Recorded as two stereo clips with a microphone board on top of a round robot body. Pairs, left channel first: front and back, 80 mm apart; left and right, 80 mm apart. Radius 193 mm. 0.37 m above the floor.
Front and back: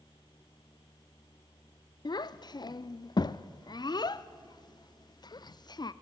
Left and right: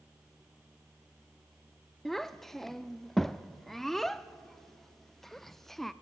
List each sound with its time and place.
2.0 s a child speaking: 5° left, 0.5 m